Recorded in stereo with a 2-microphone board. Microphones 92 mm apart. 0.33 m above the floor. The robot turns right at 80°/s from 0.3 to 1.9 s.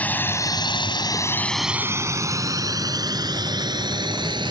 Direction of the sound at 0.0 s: 20° left (ahead or behind).